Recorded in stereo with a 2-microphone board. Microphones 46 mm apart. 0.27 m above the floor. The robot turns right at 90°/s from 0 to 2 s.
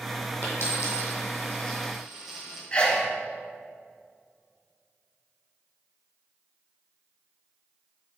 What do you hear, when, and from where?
0.4 s a dropped coin: 45° left (ahead or behind), 3 m; by 2.6 s 5° right (ahead or behind), 3 m
2.7 s a sneeze: 25° left (ahead or behind), 1.5 m